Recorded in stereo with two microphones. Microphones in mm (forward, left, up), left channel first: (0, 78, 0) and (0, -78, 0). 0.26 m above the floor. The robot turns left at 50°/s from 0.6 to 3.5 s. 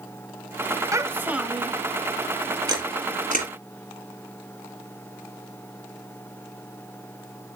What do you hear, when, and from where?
0.9 s a child speaking: 145° right, 0.8 m; by 1.8 s 175° left, 0.8 m
2.7 s a camera shutter: 25° right (ahead or behind), 5 m; by 3.5 s 65° right (ahead or behind), 5 m